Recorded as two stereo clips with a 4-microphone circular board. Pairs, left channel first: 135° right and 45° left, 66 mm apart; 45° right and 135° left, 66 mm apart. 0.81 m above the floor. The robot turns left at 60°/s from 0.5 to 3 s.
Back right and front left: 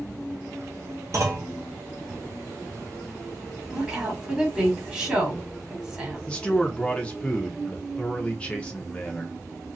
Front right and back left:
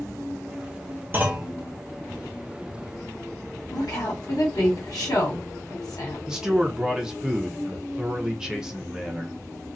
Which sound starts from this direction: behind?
A man speaking, at 6.3 s.